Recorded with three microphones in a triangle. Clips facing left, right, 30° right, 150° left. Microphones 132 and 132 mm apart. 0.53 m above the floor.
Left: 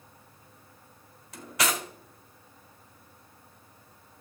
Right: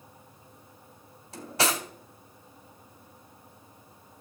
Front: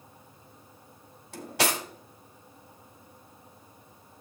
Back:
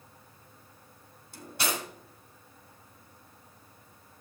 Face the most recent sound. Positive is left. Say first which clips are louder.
# right 2 dB, front 5 dB
turn(degrees=-30)